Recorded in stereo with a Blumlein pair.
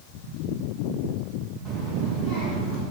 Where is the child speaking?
5° right, 1.8 m; by 2.8 s 10° left, 3 m.